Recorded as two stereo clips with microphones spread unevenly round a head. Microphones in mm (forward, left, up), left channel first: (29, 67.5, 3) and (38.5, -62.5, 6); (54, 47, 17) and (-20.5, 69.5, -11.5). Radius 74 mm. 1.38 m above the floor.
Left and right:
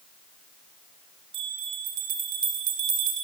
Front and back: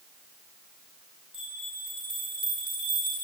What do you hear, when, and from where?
1.3 s a bell: 105° right, 3 m